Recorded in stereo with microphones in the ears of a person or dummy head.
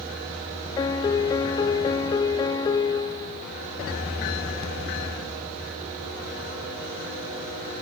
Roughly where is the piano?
Left.